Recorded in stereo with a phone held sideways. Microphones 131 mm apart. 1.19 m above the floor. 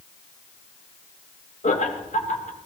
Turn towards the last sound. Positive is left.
turn(degrees=65)  # may be behind; listen again after turning